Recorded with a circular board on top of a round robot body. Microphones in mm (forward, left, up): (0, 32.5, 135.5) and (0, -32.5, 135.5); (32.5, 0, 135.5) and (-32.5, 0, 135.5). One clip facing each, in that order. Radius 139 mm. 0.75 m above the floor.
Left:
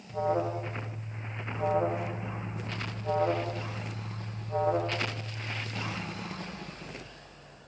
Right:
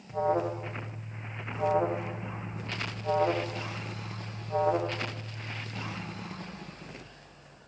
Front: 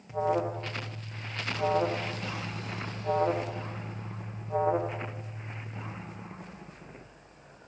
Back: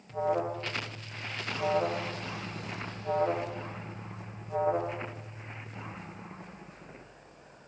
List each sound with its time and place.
0.1 s an alarm: 55° right, 1.3 m